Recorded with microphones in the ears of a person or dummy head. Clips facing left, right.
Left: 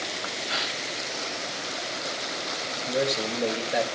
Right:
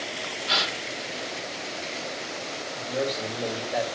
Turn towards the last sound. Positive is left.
turn(degrees=35)  # may be behind; listen again after turning